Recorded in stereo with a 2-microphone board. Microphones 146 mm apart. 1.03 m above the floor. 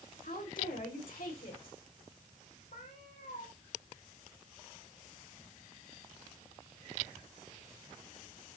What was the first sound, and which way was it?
A woman speaking, 75° left (ahead or behind).